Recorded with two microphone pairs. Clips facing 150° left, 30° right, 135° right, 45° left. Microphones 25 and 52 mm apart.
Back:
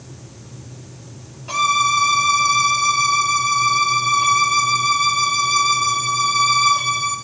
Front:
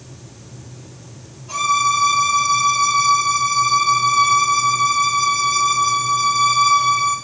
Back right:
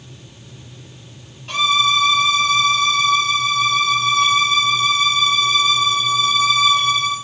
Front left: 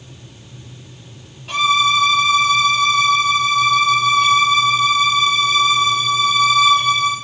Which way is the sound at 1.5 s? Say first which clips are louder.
Even, front left 2 dB; 135° left.